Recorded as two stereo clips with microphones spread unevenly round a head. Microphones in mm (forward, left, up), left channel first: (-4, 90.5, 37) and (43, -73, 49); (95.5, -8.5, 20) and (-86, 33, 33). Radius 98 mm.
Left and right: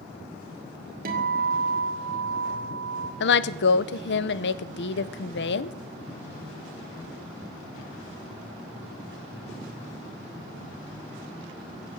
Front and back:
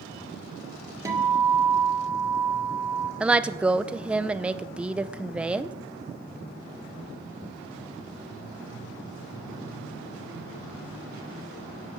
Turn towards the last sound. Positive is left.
turn(degrees=85)